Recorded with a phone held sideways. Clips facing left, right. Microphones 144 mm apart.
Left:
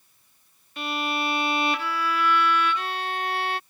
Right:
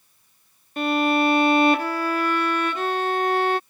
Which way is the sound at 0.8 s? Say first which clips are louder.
Right 9 dB; 45° right (ahead or behind).